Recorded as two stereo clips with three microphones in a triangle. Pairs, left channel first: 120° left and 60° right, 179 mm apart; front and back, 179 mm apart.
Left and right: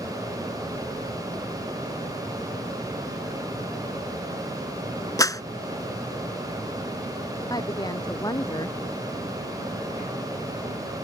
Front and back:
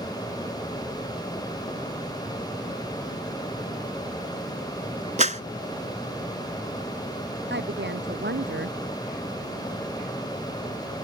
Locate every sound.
5.2 s a clap: straight behind
7.5 s a woman speaking: 170° right